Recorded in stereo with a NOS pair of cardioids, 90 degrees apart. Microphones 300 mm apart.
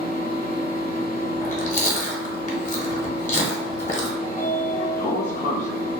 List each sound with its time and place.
0.0 s a fan: 30° left, 1.0 m
1.4 s chewing: 25° left, 0.8 m
4.2 s a sliding door: 25° left, 0.8 m